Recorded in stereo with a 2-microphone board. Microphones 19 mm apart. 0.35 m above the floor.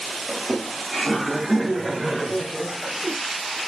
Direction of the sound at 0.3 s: 35° left (ahead or behind).